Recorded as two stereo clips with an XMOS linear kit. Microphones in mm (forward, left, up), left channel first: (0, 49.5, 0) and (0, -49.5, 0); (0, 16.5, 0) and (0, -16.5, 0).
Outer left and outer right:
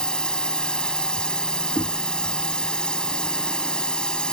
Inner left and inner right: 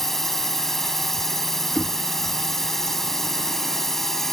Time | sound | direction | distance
0.0 | a drone | 10° left (ahead or behind) | ?
1.8 | knocking | 55° left (ahead or behind) | ?